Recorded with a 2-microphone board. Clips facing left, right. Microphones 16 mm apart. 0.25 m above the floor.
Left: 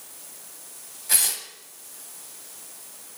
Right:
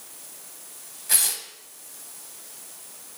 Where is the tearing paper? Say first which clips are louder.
Even; centre (ahead or behind), 0.9 m.